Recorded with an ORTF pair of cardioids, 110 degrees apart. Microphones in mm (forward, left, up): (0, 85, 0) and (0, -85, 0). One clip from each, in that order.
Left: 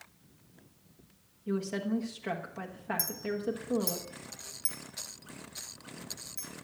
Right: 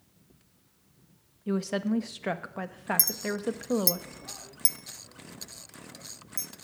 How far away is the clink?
About 0.5 m.